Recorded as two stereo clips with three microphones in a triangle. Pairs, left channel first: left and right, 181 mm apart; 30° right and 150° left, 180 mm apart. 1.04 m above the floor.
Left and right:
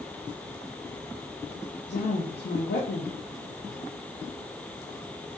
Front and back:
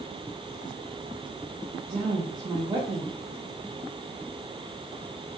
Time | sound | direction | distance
1.9 | a woman speaking | 85° left | 0.5 m